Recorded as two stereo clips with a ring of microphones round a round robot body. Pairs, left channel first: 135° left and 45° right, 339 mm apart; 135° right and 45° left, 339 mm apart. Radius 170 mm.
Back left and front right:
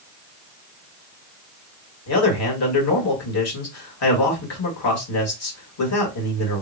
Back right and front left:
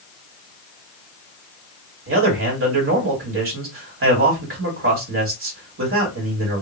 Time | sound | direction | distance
2.1 | a man speaking | 95° left | 1.8 m